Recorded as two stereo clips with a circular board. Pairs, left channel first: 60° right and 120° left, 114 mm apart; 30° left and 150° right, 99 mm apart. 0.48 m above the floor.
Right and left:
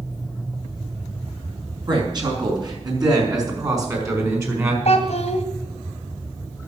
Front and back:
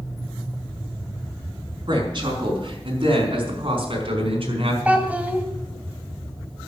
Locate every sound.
1.9 s a woman speaking: 170° left, 5 m; by 4.8 s 175° right, 4 m
4.8 s a child speaking: 75° right, 2 m